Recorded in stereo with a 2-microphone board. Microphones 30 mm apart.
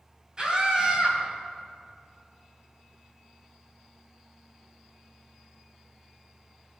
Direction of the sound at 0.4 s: 30° right (ahead or behind).